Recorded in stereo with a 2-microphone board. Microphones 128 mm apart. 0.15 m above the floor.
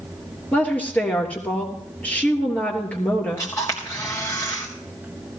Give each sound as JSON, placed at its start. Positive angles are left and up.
{"t": 0.5, "sound": "a woman speaking", "side_deg": 10, "distance_m": 3.0}
{"t": 3.4, "sound": "a camera shutter", "side_deg": 25, "distance_m": 3.5}